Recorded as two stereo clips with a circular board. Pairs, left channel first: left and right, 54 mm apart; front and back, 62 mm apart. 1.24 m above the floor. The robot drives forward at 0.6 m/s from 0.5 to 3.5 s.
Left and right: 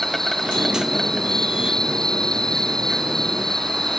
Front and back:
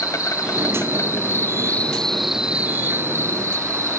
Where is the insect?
10° left; by 4.0 s 170° left.